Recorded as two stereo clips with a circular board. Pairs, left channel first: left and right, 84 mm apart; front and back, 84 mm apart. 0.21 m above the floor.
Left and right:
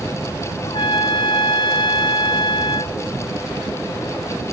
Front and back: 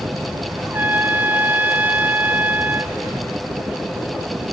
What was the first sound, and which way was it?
A trumpet, 110° left.